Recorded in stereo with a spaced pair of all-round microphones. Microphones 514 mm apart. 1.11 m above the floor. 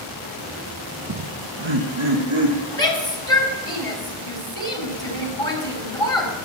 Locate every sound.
1.1 s laughter: 45° right (ahead or behind), 0.5 m; by 2.6 s 70° right (ahead or behind), 2 m
2.7 s a shout: 70° left (ahead or behind), 3 m